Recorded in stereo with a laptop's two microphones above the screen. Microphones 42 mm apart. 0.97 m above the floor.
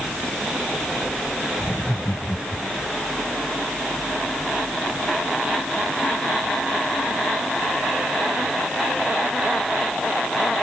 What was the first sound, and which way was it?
Laughter, 60° left (ahead or behind).